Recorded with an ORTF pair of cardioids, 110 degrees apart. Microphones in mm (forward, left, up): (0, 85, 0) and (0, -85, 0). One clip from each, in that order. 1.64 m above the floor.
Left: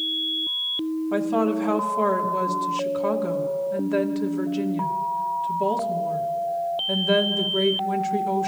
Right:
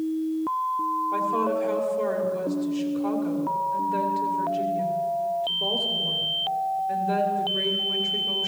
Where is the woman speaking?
60° left, 1.9 m.